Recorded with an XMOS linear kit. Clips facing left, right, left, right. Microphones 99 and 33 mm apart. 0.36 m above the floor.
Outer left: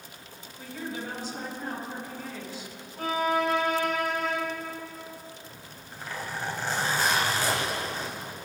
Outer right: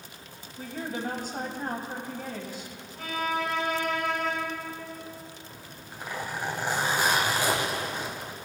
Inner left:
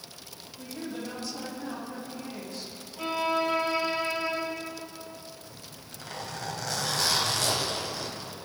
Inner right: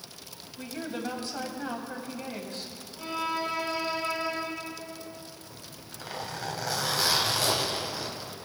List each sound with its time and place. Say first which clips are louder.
0.6 s a woman speaking: outer right 2 dB, inner right 2 dB; 50° right (ahead or behind), 2.5 m
3.0 s a violin: outer left 4 dB, inner left 4 dB; 45° left (ahead or behind), 6 m
5.5 s a zipper: outer right 1 dB, even; 15° right (ahead or behind), 2 m